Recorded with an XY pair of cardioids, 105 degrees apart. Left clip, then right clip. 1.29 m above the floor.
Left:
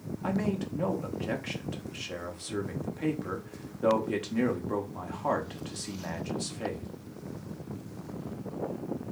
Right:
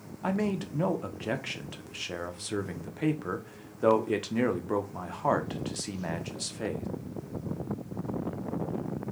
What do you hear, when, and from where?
0.2 s a man speaking: 25° right, 0.6 m